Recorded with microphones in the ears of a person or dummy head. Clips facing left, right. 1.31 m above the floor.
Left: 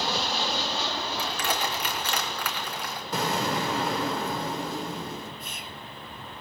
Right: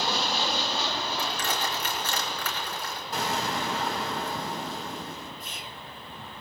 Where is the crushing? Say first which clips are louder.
Left 1 dB; 60° left (ahead or behind), 3 m.